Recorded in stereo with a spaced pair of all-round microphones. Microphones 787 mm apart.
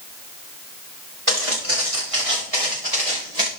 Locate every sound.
1.3 s footsteps: 40° right (ahead or behind), 8 m; by 3.5 s 50° right (ahead or behind), 6.5 m